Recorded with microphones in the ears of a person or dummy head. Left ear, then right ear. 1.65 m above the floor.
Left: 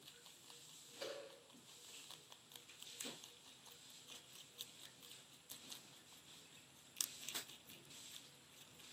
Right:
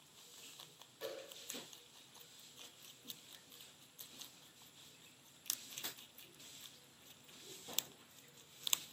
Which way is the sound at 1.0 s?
35° left (ahead or behind).